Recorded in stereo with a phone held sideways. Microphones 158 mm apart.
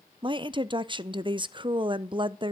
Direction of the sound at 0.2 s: 30° right (ahead or behind).